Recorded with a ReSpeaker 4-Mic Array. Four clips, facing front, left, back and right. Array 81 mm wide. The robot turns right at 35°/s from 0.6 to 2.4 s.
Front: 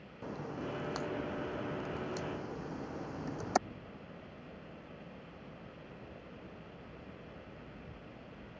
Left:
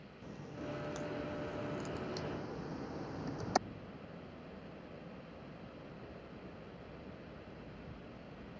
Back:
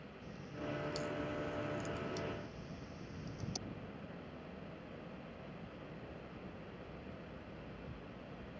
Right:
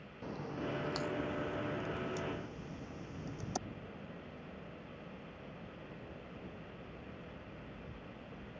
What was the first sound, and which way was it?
A crack, 30° right.